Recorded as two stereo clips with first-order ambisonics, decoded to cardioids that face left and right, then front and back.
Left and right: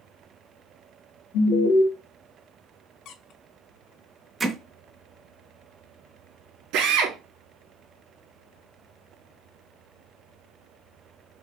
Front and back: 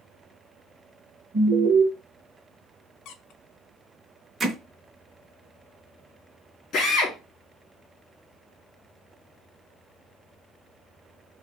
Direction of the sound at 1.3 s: 95° left.